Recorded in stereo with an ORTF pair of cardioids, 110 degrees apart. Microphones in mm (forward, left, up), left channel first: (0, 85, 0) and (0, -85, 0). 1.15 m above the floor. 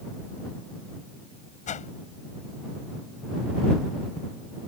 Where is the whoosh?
45° left.